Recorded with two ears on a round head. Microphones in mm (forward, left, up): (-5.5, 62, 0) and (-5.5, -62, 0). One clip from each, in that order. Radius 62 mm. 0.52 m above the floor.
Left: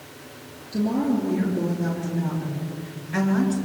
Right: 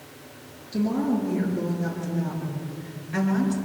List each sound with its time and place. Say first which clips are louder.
0.7 s a woman speaking: left 2 dB; 15° right (ahead or behind), 8.5 m; by 3.5 s 5° left (ahead or behind), 6.5 m